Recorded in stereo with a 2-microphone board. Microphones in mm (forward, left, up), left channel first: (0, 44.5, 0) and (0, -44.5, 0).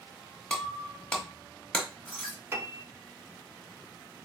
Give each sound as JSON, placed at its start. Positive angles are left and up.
{"t": 0.5, "sound": "breaking glass", "side_deg": 10, "distance_m": 1.1}
{"t": 2.5, "sound": "a piano", "side_deg": -30, "distance_m": 0.5}